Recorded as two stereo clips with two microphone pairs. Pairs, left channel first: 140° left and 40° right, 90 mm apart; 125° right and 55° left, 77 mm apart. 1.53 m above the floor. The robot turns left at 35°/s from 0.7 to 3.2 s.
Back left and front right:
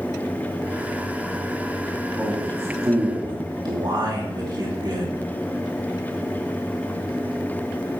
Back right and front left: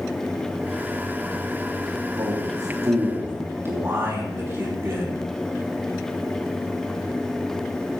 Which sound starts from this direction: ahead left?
A man speaking, at 2.2 s.